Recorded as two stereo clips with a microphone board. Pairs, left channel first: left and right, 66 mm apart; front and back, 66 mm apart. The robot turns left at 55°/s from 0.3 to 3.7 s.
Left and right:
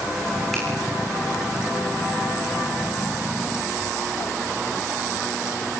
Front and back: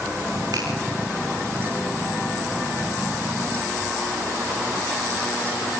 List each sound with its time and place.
0.5 s a finger snap: 175° left, 9 m; by 0.7 s 170° left, 9 m